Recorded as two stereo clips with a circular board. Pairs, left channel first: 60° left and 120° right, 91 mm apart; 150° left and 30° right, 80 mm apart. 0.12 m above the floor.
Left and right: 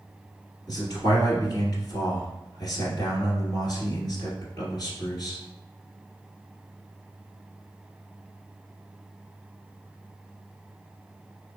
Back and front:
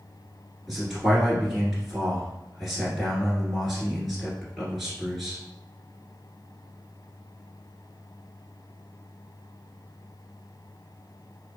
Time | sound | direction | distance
0.7 | a man speaking | 60° left | 1.6 m